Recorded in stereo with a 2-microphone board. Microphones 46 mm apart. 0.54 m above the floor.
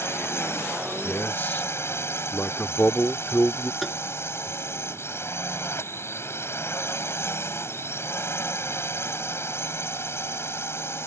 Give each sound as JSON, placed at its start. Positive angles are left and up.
{"t": 0.0, "sound": "a drone", "side_deg": 60}
{"t": 1.0, "sound": "a man speaking", "side_deg": 45}
{"t": 3.8, "sound": "tapping", "side_deg": 5}